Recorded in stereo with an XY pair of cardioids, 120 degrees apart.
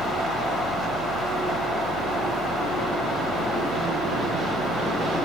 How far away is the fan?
About 0.9 m.